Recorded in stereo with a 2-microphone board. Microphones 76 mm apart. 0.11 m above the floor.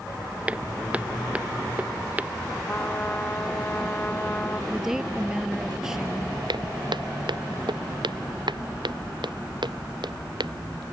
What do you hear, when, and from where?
0.5 s footsteps: 15° right (ahead or behind); by 2.3 s 20° right (ahead or behind)
2.7 s a trumpet: 20° left (ahead or behind)
4.7 s a woman speaking: 5° right (ahead or behind)
6.5 s footsteps: 75° right (ahead or behind); by 10.8 s 70° right (ahead or behind)